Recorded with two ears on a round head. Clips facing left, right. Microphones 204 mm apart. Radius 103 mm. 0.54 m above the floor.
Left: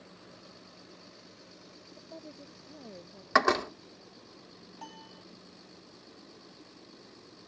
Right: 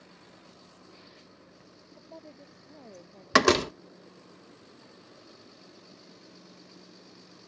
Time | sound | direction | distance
2.0 | a woman speaking | 10° left (ahead or behind) | ?
3.3 | a door slam | 40° right (ahead or behind) | ?
4.8 | a piano | 85° left | ?